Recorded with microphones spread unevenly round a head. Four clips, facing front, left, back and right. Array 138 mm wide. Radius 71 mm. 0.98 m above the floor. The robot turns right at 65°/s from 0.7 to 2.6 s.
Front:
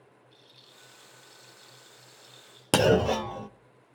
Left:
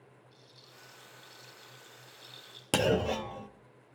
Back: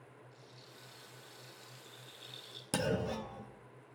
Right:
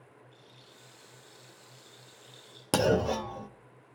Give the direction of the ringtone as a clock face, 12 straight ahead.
No ringtone in this recording.